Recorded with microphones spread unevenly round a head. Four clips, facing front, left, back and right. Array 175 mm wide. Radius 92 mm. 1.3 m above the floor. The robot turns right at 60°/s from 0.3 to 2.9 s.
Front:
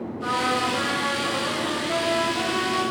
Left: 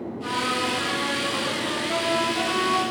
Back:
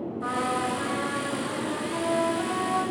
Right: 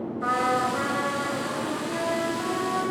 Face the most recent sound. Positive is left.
turn(degrees=85)